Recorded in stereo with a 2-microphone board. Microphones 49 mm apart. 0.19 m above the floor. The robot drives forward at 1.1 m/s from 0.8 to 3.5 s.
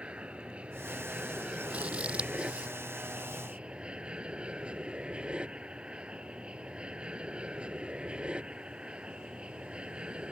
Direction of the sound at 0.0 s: 25° right (ahead or behind).